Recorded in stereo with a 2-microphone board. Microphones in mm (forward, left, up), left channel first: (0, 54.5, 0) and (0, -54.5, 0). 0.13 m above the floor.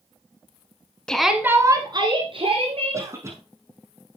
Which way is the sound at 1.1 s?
10° left (ahead or behind).